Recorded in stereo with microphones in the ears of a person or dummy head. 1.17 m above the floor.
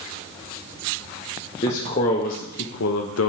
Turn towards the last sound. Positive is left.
turn(degrees=75)  # may be behind; listen again after turning